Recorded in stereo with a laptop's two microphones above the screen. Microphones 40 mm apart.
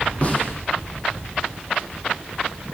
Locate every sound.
0.2 s a snare drum: 30° left (ahead or behind), 9 m